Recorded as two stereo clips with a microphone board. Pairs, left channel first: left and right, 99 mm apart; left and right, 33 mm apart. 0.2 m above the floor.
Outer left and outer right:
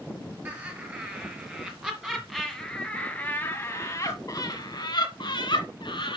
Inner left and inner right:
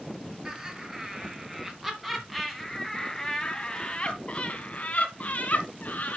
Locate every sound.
0.5 s laughter: 25° right (ahead or behind), 2.5 m; by 6.2 s 55° left (ahead or behind), 2.5 m